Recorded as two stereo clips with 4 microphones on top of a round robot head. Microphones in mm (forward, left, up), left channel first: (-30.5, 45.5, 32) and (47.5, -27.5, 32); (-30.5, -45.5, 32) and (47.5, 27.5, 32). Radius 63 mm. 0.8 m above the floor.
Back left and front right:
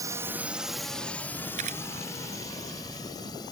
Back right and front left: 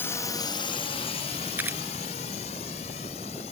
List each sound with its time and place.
0.0 s a drone: 80° right; by 3.5 s 170° right
1.6 s a camera shutter: 30° right